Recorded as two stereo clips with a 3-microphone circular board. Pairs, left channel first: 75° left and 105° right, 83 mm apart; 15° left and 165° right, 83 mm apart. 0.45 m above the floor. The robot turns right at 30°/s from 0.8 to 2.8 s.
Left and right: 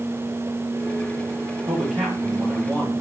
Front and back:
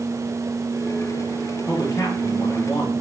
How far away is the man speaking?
About 5.5 m.